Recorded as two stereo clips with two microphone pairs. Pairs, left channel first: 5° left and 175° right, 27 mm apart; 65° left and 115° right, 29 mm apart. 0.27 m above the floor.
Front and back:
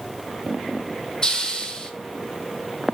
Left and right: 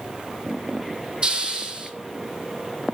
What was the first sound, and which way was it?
A hiss, 55° right.